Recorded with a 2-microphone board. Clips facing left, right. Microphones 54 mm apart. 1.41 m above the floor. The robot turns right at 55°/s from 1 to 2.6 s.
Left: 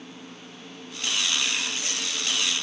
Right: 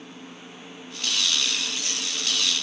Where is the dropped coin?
No dropped coin in this recording.